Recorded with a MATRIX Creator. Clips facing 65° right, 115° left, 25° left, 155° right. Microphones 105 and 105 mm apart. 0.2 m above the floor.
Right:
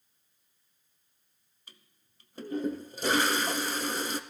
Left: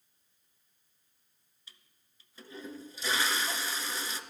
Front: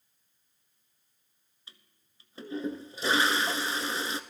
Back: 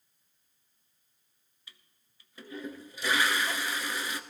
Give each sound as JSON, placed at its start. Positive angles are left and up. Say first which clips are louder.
{"t": 1.7, "sound": "a toilet flushing", "louder": "right 3 dB, front 1 dB", "azimuth_deg": -35, "distance_m": 0.6}